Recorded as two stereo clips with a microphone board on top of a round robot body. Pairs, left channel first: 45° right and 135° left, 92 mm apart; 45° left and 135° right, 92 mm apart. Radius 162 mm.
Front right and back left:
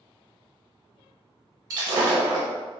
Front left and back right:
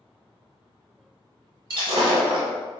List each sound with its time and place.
1.7 s breaking glass: 175° right, 0.6 m